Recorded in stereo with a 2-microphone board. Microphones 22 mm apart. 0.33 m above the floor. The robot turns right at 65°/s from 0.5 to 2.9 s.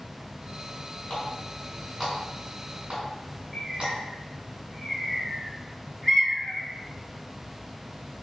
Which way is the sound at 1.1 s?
55° left (ahead or behind).